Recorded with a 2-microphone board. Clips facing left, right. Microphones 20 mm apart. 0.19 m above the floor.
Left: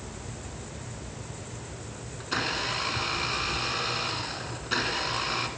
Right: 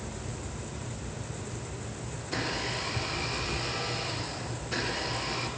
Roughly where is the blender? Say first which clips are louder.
Left 4 dB; left.